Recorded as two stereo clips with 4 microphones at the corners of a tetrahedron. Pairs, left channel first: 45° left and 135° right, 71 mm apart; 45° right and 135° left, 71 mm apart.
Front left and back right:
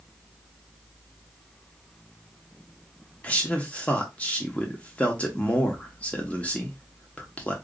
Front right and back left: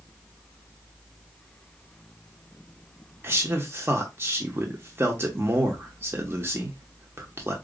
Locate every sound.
3.2 s a man speaking: 105° left, 1.0 m